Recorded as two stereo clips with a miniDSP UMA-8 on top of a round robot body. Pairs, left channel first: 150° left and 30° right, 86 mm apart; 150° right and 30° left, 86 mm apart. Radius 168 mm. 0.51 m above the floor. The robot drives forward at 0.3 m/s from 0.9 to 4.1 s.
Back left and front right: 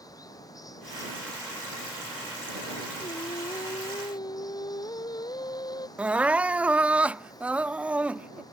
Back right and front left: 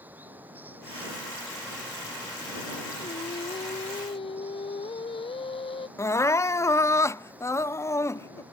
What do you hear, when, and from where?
0.0 s running water: 100° left; by 8.5 s 105° left
3.0 s singing: 165° right
6.0 s crying: 105° right